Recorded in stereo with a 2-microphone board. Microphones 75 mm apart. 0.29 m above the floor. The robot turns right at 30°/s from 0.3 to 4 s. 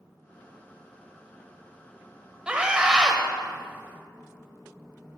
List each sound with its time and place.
2.5 s a scream: 15° right (ahead or behind), 0.9 m; by 3.2 s 10° right (ahead or behind), 0.9 m